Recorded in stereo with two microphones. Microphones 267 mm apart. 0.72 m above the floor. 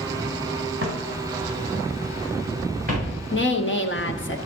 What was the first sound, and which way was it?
Footsteps, 45° right (ahead or behind).